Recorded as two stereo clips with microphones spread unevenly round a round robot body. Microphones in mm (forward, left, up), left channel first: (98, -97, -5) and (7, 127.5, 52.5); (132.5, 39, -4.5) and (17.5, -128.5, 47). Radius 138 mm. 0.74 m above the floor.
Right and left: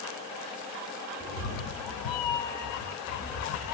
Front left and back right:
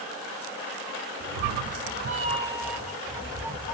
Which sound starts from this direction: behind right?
A cat meowing, at 1.2 s.